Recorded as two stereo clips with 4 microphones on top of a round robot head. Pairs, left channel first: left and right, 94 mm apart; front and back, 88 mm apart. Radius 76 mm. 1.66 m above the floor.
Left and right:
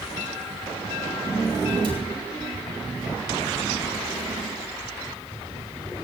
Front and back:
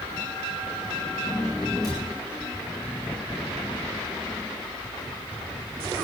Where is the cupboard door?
55° right, 7 m.